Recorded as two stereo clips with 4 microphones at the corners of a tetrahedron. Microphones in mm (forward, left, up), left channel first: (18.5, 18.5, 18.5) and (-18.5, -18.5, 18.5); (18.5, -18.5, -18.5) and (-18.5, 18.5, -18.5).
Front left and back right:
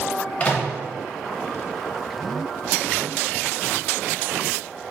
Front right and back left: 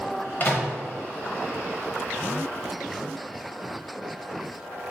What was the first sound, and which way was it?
A microwave, 10° right.